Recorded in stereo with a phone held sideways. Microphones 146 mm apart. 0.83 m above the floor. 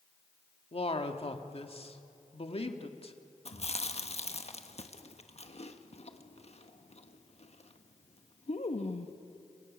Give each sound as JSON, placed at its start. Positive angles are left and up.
{"t": 0.7, "sound": "a man speaking", "side_deg": 40, "distance_m": 1.5}
{"t": 3.5, "sound": "chewing", "side_deg": 45, "distance_m": 1.2}